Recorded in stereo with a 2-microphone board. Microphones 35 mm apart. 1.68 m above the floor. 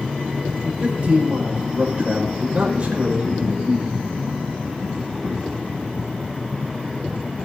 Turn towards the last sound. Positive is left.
turn(degrees=-35)  # may be behind; listen again after turning